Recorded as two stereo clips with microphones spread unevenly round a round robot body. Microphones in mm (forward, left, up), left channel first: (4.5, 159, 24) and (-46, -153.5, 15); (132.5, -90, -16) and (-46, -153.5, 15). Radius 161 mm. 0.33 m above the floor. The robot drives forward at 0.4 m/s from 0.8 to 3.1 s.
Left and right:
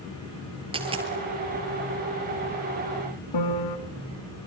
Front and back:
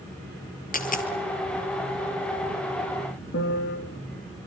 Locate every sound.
0.7 s a dropped coin: 25° right, 3 m
3.3 s a piano: 65° left, 2 m